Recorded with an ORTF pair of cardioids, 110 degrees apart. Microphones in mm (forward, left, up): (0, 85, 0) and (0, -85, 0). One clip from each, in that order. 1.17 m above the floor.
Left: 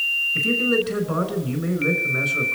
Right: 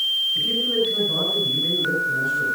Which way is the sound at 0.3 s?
65° left.